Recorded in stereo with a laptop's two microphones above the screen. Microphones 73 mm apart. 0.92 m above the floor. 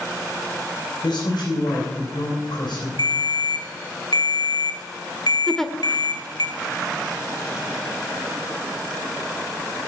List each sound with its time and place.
1.0 s a man speaking: 80° left, 4 m
3.0 s a ringtone: 85° left, 1.9 m
5.5 s a giggle: 5° left (ahead or behind), 1.2 m